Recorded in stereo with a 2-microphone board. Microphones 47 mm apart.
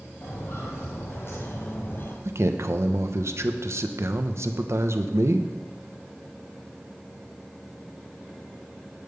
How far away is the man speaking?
About 0.9 m.